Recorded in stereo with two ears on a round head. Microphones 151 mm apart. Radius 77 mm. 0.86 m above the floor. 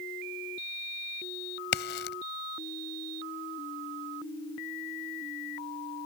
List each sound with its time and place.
1.7 s a crack: 65° left (ahead or behind)